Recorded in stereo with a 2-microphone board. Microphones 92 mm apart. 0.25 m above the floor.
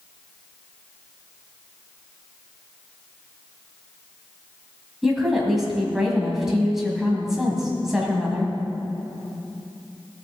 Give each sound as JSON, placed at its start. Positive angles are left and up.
{"t": 5.0, "sound": "a woman speaking", "side_deg": -5, "distance_m": 1.8}